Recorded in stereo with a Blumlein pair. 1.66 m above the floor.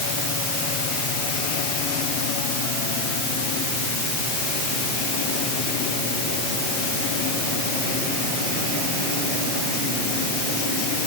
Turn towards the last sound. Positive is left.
No sound to turn to.